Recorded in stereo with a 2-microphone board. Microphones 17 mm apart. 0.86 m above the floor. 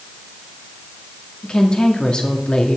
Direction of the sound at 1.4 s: 60° left (ahead or behind).